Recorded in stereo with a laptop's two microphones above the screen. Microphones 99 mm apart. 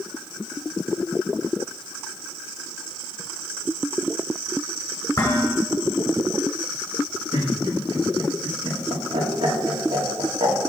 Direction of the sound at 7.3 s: 75° right (ahead or behind).